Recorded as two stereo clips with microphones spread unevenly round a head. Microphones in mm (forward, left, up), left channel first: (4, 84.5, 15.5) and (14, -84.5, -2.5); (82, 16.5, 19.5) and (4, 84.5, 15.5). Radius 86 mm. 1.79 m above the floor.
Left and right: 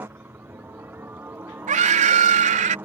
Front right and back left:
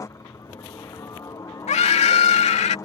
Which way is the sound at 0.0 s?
20° right.